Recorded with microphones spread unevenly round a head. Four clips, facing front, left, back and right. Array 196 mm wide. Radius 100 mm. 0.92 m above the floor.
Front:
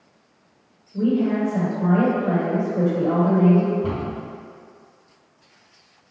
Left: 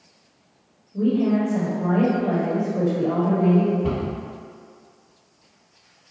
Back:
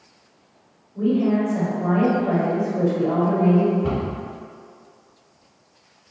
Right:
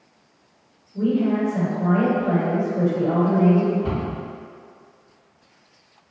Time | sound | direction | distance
0.9 | a woman speaking | 40° left | 1.4 m
3.8 | a cupboard door | 10° left | 1.8 m